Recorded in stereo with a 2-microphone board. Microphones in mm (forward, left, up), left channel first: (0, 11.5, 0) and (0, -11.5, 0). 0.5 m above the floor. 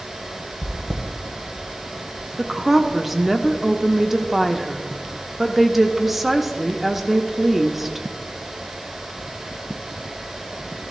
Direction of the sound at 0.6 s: 25° right (ahead or behind).